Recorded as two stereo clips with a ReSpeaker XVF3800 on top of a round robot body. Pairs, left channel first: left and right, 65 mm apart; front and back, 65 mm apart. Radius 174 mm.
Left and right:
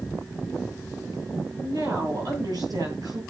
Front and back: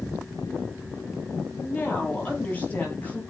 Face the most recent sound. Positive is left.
turn(degrees=-65)